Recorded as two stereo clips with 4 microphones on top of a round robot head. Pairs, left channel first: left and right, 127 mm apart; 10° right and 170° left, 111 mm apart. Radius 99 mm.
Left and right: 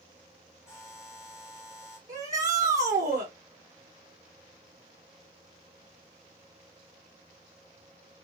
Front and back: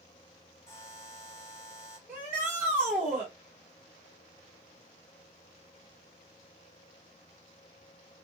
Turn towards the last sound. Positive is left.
turn(degrees=-110)